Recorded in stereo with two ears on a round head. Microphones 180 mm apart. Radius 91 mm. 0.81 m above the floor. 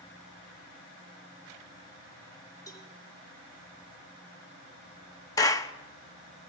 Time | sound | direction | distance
2.7 | a cowbell | 20° left (ahead or behind) | 2 m
5.4 | a clap | 15° left (ahead or behind) | 0.6 m